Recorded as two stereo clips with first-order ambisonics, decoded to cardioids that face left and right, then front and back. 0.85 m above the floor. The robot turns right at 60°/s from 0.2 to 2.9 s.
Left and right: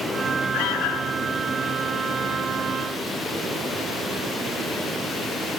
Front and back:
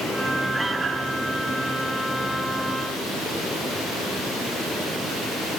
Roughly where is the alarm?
Left.